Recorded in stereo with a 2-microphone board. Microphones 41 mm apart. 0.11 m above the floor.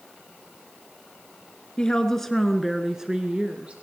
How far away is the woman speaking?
About 1.6 m.